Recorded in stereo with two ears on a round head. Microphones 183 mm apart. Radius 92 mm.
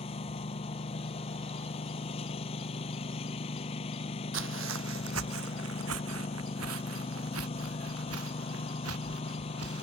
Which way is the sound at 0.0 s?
30° left (ahead or behind).